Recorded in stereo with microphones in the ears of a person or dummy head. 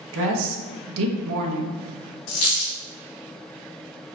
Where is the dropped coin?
70° left (ahead or behind), 1.4 m.